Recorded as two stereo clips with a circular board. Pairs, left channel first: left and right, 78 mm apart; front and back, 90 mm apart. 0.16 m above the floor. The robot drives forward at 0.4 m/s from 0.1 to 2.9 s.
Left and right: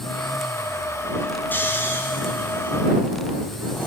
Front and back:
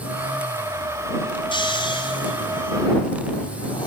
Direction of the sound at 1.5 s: 25° left.